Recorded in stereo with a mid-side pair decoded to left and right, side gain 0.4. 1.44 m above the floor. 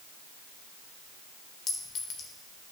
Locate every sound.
1.7 s a clink: 65° left, 4 m